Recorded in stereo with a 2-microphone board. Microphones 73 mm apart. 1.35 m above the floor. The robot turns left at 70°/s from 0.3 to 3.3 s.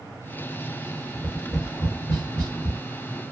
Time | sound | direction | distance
1.1 | tapping | 10° left (ahead or behind) | 2.5 m